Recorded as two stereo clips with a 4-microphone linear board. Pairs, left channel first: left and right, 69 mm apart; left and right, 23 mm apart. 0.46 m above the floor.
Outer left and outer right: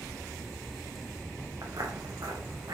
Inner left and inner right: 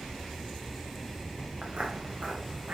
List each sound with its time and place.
1.6 s footsteps: 50° right (ahead or behind), 2 m; by 2.8 s 60° right (ahead or behind), 3 m